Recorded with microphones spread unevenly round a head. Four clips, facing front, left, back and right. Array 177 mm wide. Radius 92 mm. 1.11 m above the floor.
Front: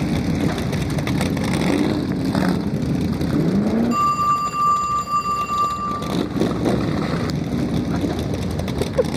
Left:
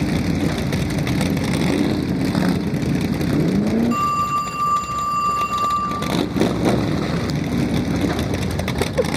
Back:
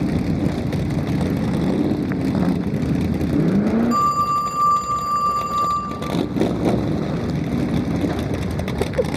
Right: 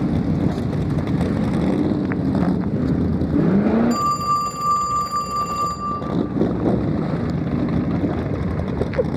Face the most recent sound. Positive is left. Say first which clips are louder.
# even, even
turn(degrees=-175)